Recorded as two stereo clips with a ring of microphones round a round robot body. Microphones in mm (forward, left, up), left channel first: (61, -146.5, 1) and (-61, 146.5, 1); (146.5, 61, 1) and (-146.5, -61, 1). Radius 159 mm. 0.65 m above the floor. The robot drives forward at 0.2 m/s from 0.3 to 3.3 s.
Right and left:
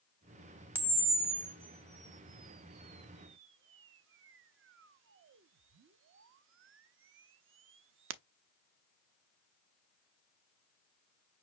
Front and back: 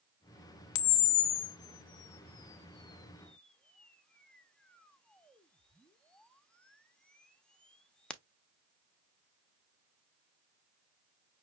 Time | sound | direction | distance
0.8 | a camera shutter | 30° left | 0.6 m